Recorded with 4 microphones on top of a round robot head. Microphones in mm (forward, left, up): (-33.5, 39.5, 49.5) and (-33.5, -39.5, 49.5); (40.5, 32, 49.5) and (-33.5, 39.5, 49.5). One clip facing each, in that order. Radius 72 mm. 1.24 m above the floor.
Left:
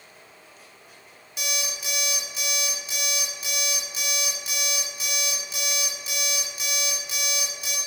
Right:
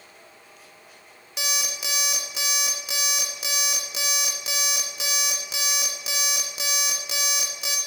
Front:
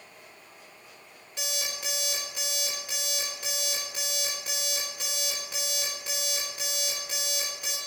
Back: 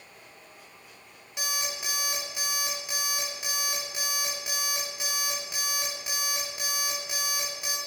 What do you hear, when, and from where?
1.4 s an alarm clock: 105° right, 1.6 m